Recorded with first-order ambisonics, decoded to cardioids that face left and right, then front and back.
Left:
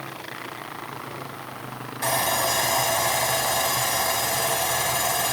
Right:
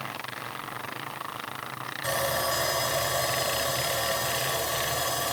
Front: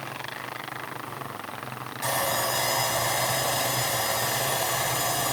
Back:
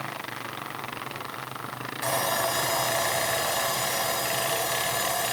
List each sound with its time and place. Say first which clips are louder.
2.0 s sawing: left 5 dB, even; 95° left, 6 m